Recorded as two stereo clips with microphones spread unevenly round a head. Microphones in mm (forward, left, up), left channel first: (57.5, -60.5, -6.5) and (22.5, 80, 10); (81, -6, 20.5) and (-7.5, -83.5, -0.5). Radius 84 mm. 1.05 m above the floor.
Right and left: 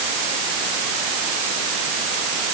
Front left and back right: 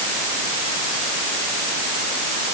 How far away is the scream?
I don't hear a scream.